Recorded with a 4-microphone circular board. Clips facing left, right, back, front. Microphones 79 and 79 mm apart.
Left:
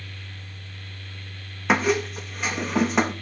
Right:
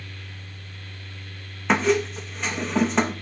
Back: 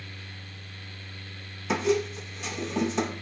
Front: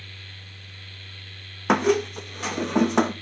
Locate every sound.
1.7 s a squeak: 10° left, 0.6 m